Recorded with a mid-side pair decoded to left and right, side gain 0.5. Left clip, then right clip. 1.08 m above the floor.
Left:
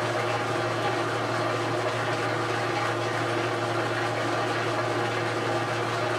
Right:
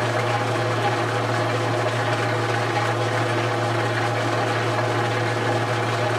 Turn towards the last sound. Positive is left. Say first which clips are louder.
# right 4 dB
turn(degrees=-30)